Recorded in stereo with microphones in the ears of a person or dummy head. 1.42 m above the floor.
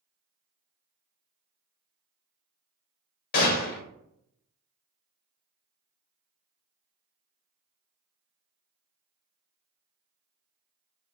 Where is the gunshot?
50° left (ahead or behind), 0.8 m.